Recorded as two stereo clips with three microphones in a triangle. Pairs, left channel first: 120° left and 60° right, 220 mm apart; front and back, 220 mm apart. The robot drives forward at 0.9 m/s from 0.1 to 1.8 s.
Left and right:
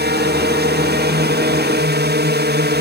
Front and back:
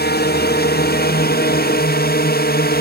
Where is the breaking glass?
I don't hear breaking glass.